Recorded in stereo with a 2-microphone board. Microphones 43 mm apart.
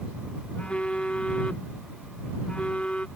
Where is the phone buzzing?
25° left (ahead or behind).